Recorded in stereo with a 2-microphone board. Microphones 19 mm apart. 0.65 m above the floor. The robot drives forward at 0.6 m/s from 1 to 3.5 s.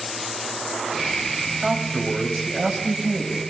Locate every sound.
1.6 s a man speaking: 40° right (ahead or behind), 3.5 m; by 3.4 s 30° right (ahead or behind), 4.5 m